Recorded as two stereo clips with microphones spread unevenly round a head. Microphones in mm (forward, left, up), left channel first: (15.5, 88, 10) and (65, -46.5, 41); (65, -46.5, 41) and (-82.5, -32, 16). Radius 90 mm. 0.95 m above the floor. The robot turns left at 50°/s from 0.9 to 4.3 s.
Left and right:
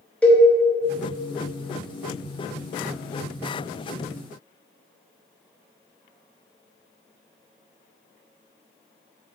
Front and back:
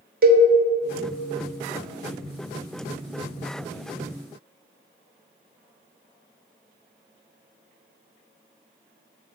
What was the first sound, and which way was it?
A cowbell, 170° right.